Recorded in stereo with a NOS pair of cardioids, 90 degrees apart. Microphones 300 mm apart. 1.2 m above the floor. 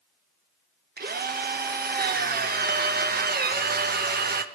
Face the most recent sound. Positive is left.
turn(degrees=-30)